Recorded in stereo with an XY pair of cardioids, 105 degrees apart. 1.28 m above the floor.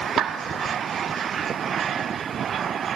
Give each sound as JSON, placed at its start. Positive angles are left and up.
{"t": 0.2, "sound": "a clap", "azimuth_deg": -65, "distance_m": 1.5}